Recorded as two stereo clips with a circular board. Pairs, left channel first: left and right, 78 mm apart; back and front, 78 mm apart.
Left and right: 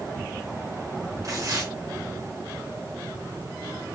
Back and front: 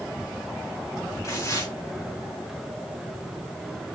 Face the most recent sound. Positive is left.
turn(degrees=-130)